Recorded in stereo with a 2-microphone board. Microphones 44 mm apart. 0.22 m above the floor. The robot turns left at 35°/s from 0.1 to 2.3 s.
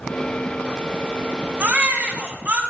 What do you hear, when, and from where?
1.6 s a baby crying: 45° right (ahead or behind), 1.5 m